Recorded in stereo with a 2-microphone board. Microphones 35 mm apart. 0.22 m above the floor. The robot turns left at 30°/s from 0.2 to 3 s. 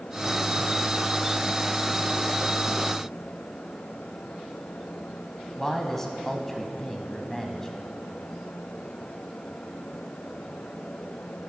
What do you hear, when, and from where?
5.6 s a man speaking: 10° left (ahead or behind), 1.1 m